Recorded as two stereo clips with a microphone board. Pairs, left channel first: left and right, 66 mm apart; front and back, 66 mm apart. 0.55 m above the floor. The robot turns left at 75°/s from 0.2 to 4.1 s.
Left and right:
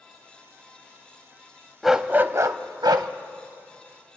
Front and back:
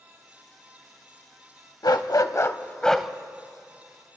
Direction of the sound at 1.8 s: 5° right.